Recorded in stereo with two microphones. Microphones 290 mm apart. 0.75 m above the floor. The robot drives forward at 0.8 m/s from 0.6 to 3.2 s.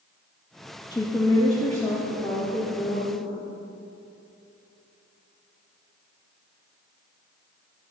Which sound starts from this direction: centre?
A woman speaking, at 0.9 s.